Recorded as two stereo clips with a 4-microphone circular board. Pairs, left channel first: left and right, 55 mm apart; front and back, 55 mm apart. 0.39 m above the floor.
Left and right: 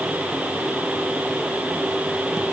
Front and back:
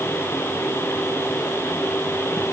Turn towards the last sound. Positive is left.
No sound to turn to.